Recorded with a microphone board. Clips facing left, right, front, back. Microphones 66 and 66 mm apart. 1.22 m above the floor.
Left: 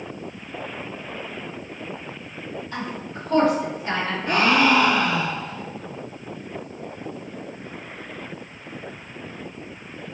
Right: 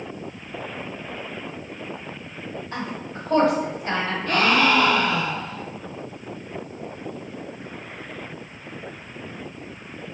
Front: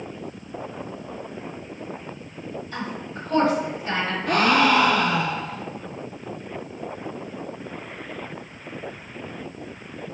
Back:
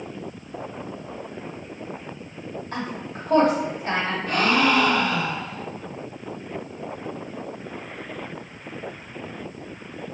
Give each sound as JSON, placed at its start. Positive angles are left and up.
{"t": 2.7, "sound": "a woman speaking", "azimuth_deg": -145, "distance_m": 2.0}
{"t": 4.3, "sound": "a gasp", "azimuth_deg": 20, "distance_m": 0.6}